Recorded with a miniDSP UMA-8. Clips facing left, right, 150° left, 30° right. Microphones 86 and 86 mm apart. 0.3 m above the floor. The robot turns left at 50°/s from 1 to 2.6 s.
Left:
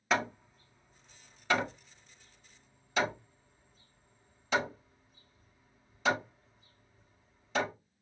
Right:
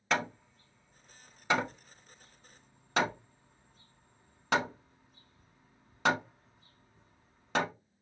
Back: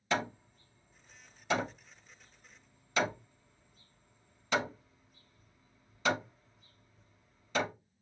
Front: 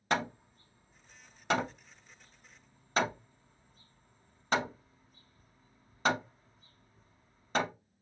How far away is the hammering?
About 0.8 m.